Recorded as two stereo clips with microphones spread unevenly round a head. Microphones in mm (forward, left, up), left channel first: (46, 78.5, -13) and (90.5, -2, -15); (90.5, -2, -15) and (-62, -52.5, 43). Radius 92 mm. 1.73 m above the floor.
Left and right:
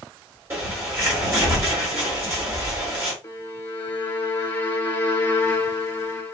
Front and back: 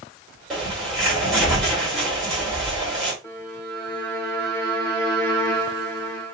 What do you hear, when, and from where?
0.5 s a bird: 100° right, 1.6 m
3.2 s a violin: 125° left, 1.0 m